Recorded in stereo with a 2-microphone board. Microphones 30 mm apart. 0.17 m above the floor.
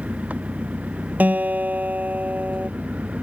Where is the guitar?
65° right (ahead or behind).